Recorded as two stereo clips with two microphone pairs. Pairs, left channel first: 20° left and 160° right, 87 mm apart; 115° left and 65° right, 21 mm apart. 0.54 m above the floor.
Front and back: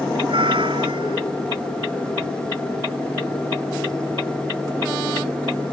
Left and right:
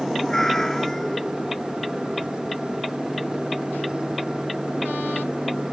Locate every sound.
0.3 s a cat meowing: straight behind